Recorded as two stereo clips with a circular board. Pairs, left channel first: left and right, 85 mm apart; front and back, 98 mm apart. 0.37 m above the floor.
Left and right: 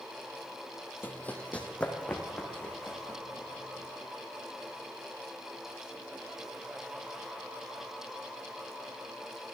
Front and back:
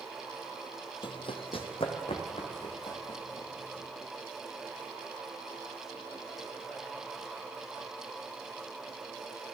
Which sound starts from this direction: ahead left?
Running footsteps, at 1.0 s.